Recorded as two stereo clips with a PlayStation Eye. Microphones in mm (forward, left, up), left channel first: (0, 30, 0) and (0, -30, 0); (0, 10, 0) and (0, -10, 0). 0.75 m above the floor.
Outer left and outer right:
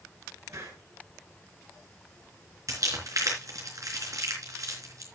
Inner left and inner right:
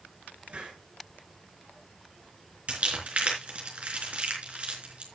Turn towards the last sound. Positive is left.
turn(degrees=-70)  # may be behind; listen again after turning